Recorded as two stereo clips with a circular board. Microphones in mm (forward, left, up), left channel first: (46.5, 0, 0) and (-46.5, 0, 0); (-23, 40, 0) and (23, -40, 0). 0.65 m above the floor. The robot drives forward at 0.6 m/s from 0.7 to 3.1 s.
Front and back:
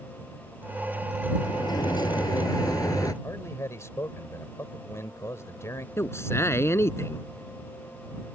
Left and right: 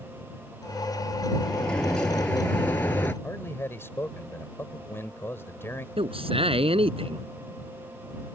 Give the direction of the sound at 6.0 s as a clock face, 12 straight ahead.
2 o'clock.